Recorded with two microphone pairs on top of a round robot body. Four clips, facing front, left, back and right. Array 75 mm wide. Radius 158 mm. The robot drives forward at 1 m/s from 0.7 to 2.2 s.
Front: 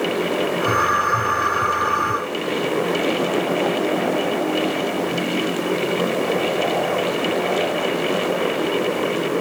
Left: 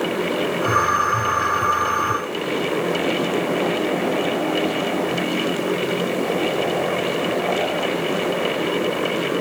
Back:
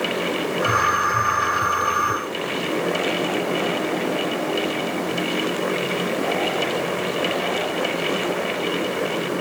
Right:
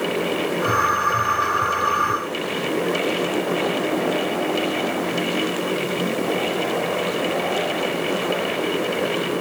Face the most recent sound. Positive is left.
No sound to turn to.